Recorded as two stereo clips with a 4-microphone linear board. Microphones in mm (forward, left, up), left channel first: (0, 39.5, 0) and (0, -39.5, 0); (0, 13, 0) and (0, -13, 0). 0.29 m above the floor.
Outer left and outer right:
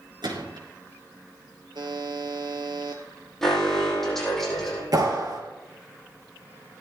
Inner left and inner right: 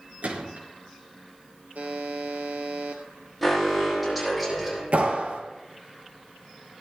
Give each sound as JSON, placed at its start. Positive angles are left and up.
{"t": 0.2, "sound": "a gunshot", "side_deg": -75, "distance_m": 4.0}
{"t": 1.8, "sound": "a buzzer", "side_deg": -70, "distance_m": 2.5}
{"t": 3.4, "sound": "an alarm", "side_deg": 5, "distance_m": 7.0}
{"t": 4.9, "sound": "a clap", "side_deg": -55, "distance_m": 4.0}